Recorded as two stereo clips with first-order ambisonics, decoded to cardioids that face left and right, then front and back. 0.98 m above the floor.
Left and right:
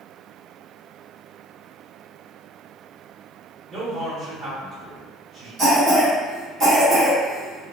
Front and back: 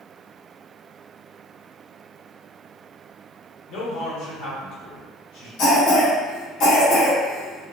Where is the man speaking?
10° right, 1.6 m.